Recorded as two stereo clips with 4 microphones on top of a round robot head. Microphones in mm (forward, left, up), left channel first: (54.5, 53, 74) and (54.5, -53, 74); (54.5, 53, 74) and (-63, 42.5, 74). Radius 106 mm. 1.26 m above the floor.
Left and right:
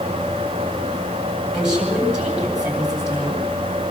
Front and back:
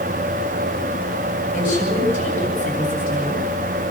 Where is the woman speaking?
10° right, 8.5 m.